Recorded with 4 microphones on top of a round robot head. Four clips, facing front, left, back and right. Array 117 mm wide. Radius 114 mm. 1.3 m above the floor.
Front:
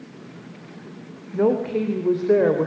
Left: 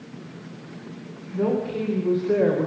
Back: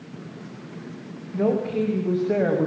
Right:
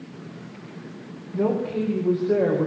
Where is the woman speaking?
5° right, 4 m; by 2.7 s 5° left, 5 m.